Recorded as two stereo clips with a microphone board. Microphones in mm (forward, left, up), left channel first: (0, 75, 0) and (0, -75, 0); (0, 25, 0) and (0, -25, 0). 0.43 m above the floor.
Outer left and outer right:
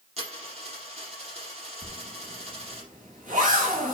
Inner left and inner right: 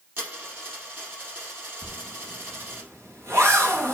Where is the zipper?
60° right (ahead or behind), 3.5 m.